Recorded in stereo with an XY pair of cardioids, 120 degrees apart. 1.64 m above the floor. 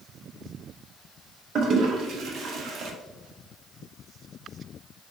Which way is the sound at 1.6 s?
55° right.